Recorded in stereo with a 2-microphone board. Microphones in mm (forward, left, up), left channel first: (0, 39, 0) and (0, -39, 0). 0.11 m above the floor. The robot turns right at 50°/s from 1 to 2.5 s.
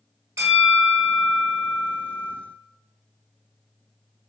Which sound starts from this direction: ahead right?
A bell, at 0.4 s.